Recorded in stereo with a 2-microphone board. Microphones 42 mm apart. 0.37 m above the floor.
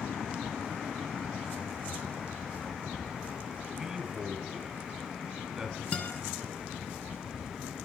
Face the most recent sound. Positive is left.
turn(degrees=30)  # may be behind; listen again after turning